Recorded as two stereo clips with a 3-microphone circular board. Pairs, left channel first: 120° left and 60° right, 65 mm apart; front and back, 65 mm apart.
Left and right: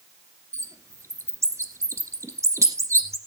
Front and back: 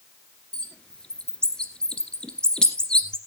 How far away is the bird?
About 1.7 m.